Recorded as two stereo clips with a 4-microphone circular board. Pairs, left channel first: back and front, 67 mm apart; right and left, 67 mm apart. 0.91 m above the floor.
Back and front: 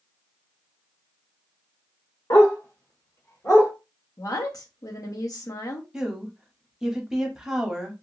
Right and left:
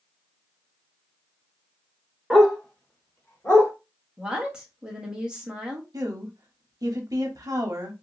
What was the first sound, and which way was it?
A dog barking, 170° left.